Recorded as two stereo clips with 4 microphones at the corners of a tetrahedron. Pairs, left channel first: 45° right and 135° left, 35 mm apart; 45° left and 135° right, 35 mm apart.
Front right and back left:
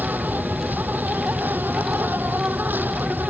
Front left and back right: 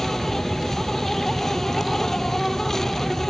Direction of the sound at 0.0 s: 120° left.